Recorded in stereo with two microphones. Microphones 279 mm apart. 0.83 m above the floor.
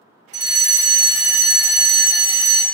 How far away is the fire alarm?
About 1.6 m.